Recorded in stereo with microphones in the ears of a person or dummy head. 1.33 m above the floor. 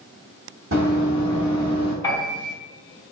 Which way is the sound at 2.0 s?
10° left (ahead or behind).